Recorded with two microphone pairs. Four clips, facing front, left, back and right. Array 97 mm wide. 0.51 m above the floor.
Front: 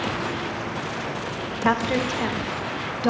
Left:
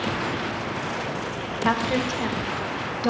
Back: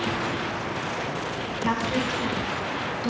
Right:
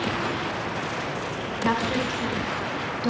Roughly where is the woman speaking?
Ahead left.